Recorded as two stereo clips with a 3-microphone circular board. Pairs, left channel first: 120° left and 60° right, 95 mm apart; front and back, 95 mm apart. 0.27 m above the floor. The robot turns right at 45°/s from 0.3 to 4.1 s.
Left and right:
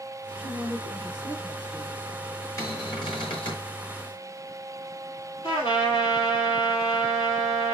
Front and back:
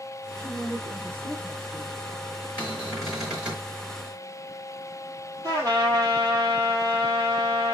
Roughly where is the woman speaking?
Ahead right.